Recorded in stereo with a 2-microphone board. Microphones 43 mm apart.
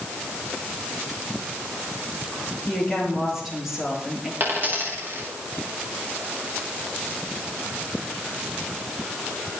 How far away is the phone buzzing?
No phone buzzing in this recording.